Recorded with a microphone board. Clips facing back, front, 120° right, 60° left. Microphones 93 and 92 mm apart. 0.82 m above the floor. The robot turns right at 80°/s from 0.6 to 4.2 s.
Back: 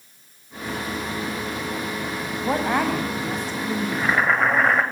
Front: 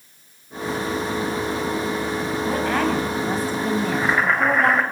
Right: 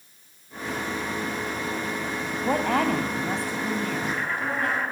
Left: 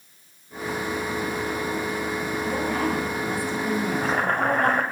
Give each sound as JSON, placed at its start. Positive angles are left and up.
{"t": 2.4, "sound": "a woman speaking", "azimuth_deg": -130, "distance_m": 4.5}
{"t": 3.9, "sound": "boiling", "azimuth_deg": 70, "distance_m": 2.5}